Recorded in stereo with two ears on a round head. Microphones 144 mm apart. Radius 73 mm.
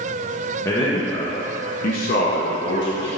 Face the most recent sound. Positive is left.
turn(degrees=75)  # may be behind; listen again after turning